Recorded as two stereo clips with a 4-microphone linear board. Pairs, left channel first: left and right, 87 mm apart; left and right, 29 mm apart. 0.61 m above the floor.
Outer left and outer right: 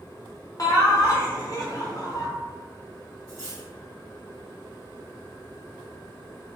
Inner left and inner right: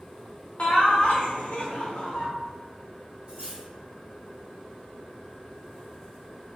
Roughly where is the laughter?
Left.